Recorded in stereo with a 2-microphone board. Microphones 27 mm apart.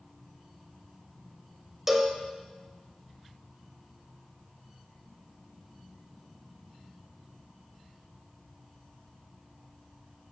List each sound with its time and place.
1.9 s a cowbell: 10° right (ahead or behind), 0.9 m